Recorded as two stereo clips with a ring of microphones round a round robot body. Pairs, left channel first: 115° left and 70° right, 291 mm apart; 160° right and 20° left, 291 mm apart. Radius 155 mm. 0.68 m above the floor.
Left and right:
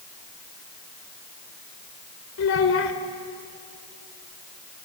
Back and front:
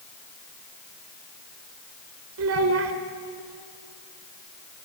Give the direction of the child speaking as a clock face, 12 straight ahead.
10 o'clock.